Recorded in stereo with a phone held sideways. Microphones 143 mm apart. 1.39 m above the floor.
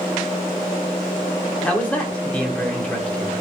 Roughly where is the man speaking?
Centre.